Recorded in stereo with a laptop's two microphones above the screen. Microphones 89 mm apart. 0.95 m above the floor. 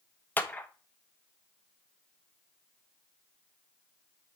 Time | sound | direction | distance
0.4 | a clap | 20° left (ahead or behind) | 0.7 m